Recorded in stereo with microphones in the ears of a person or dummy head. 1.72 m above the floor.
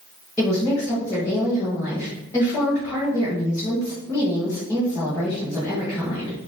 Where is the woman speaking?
15° left (ahead or behind), 1.6 m.